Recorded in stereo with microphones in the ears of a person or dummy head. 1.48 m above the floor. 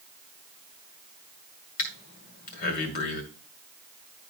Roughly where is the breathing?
Left.